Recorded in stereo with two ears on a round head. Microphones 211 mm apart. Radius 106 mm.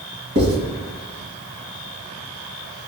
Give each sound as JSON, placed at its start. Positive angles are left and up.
{"t": 0.3, "sound": "writing", "side_deg": -50, "distance_m": 1.7}